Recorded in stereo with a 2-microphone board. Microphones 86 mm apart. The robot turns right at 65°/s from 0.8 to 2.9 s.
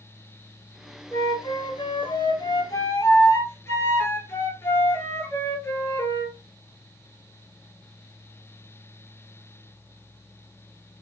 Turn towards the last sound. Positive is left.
turn(degrees=150)